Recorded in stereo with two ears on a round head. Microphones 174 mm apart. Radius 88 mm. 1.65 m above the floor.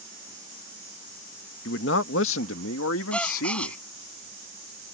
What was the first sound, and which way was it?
A man speaking, 60° left (ahead or behind).